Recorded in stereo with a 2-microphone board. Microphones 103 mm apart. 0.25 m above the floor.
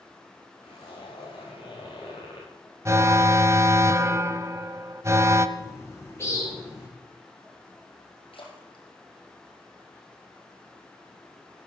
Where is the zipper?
55° left (ahead or behind), 6.5 m.